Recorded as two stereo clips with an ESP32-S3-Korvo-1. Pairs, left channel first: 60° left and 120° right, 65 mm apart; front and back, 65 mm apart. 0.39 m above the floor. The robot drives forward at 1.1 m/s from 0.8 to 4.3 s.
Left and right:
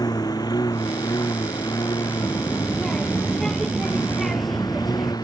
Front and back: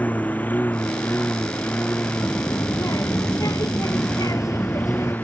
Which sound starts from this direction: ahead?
A child speaking, at 2.2 s.